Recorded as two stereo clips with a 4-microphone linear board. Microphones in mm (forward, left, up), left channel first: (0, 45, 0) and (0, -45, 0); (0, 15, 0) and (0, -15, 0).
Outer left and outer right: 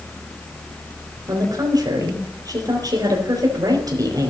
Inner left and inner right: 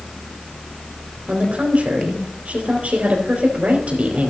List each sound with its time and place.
1.3 s a woman speaking: 45° right (ahead or behind), 4.5 m